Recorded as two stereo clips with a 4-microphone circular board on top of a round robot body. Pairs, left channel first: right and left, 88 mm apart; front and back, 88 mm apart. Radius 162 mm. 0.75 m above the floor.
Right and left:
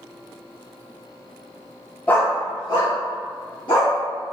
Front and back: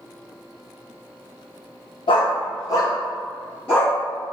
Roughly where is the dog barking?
Ahead.